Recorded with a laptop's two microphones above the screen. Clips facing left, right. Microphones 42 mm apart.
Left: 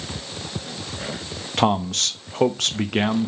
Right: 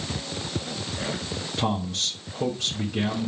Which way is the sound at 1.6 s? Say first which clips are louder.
Left 8 dB; 70° left (ahead or behind).